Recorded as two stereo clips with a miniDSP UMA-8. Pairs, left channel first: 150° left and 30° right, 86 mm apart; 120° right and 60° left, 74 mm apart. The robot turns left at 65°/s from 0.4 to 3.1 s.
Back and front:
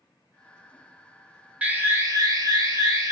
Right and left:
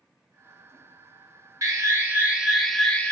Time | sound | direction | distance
1.6 | an alarm | 35° left | 1.1 m